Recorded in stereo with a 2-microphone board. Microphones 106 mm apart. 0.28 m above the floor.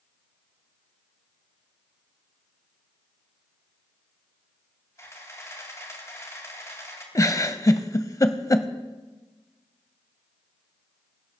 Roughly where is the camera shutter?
Left.